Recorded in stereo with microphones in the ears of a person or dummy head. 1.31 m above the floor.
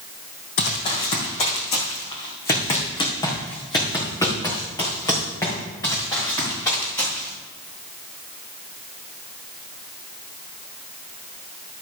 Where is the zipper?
I don't hear a zipper.